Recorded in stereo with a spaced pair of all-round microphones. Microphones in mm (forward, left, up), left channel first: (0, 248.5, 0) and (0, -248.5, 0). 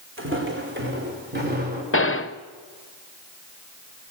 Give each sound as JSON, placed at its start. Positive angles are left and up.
{"t": 0.2, "sound": "footsteps", "side_deg": -25, "distance_m": 5.5}
{"t": 1.9, "sound": "a gunshot", "side_deg": 25, "distance_m": 0.8}